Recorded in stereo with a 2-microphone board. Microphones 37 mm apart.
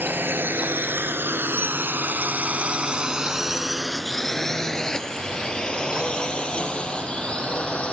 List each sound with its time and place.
0.0 s a drone: 70° right (ahead or behind); by 8.0 s 30° left (ahead or behind)